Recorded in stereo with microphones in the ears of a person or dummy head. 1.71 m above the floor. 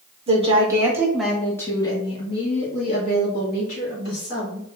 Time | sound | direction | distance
0.3 | a woman speaking | 35° right (ahead or behind) | 0.9 m